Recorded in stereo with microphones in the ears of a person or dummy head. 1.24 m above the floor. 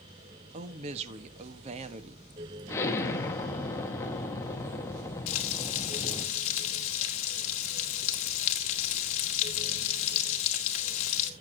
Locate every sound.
0.5 s a woman speaking: 35° right (ahead or behind), 1.3 m
2.7 s an explosion: 15° left (ahead or behind), 1.6 m
5.3 s frying: 40° left (ahead or behind), 2 m